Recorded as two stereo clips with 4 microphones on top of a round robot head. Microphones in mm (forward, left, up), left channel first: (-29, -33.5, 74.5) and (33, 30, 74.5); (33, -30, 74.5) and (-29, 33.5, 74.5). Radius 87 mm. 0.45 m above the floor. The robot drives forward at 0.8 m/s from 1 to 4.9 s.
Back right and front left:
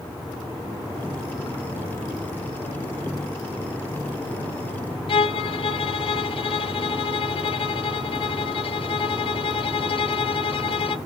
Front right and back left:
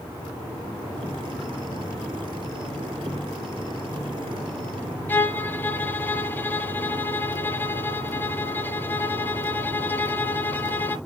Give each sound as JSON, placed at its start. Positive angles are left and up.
{"t": 5.1, "sound": "a violin", "azimuth_deg": -115, "distance_m": 0.7}